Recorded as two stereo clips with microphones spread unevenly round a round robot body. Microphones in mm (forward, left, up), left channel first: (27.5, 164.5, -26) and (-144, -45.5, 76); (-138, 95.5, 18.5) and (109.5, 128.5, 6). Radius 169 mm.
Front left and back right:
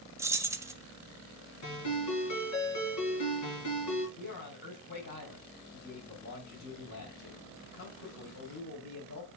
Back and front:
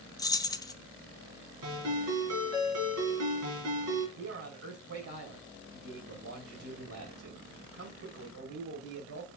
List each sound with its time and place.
0.2 s keys jangling: 120° left, 0.8 m
1.6 s a ringtone: 25° left, 4 m
4.2 s a man speaking: 10° left, 2.5 m